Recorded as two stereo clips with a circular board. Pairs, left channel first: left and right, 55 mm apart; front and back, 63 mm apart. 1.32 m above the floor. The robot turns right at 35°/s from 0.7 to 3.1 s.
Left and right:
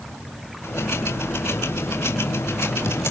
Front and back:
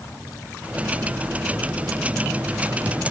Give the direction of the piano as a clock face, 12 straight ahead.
I don't hear a piano.